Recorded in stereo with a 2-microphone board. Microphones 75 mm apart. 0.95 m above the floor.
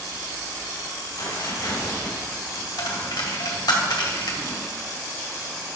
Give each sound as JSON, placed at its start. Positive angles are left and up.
{"t": 1.2, "sound": "tearing paper", "side_deg": 70, "distance_m": 3.5}
{"t": 2.8, "sound": "a dropped coin", "side_deg": 75, "distance_m": 1.8}